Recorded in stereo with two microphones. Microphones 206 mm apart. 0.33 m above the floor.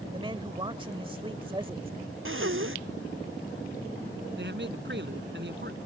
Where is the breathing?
70° right (ahead or behind).